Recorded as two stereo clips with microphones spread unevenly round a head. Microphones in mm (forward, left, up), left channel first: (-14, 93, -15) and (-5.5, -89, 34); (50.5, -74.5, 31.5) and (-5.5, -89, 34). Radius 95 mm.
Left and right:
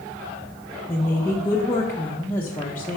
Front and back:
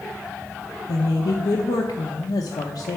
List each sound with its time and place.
0.9 s a woman speaking: 10° left, 0.6 m